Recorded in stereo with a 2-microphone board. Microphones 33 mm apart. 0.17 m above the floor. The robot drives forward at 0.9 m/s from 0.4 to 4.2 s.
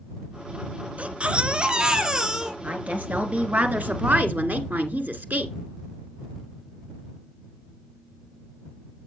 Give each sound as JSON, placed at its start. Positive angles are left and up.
{"t": 1.0, "sound": "a baby crying", "side_deg": -40, "distance_m": 1.0}
{"t": 2.6, "sound": "a woman speaking", "side_deg": -40, "distance_m": 2.5}